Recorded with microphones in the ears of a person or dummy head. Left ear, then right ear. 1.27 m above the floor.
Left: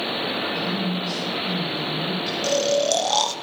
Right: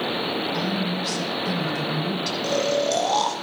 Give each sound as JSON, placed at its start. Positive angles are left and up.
{"t": 0.5, "sound": "a woman speaking", "side_deg": -55, "distance_m": 5.0}
{"t": 2.4, "sound": "snoring", "side_deg": 25, "distance_m": 0.7}